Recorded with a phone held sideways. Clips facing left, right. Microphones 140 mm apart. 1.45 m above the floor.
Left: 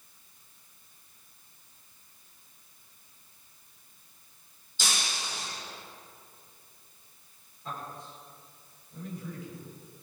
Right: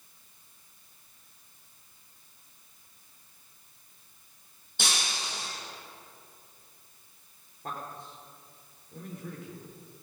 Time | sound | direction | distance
4.8 | breaking glass | 70° right (ahead or behind) | 5.5 m
7.6 | a man speaking | 65° right (ahead or behind) | 3.5 m